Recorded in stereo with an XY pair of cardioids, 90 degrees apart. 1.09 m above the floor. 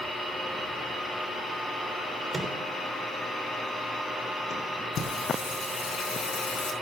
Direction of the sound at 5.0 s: 70° left.